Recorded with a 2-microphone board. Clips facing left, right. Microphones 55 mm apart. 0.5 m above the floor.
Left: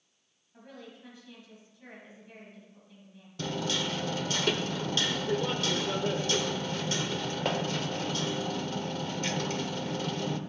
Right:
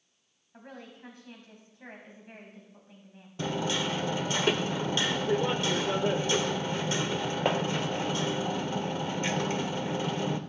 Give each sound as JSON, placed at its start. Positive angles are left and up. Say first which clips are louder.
{"t": 0.5, "sound": "a woman speaking", "louder": "right 2 dB", "side_deg": -45, "distance_m": 3.0}
{"t": 3.4, "sound": "hammering", "louder": "right 2 dB", "side_deg": -20, "distance_m": 0.6}